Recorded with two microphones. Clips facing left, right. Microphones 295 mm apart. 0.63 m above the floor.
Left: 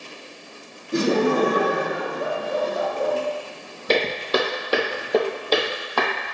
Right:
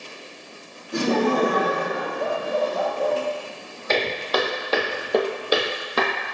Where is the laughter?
20° left (ahead or behind), 0.8 m; by 3.1 s 30° left (ahead or behind), 1.6 m.